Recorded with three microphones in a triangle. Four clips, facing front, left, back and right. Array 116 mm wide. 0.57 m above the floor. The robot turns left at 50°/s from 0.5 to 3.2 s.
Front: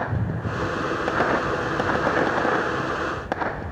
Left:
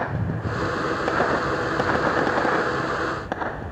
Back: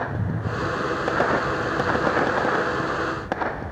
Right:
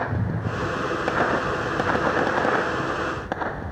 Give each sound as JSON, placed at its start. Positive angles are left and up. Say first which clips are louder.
{"t": 0.1, "sound": "a cupboard door", "louder": "even, even", "azimuth_deg": -30, "distance_m": 2.5}